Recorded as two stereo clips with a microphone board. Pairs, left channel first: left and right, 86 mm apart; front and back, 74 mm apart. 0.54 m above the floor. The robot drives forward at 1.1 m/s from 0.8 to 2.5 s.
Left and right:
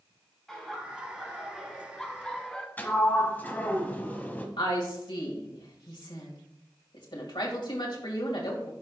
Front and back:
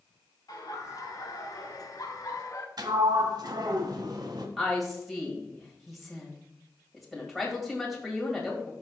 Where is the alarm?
No alarm in this recording.